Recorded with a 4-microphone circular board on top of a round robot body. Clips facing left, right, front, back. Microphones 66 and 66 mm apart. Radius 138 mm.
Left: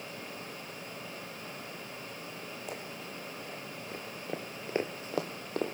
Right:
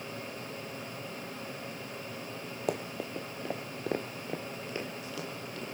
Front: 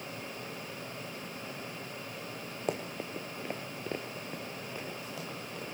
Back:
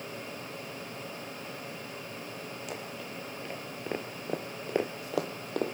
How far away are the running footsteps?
About 1.1 m.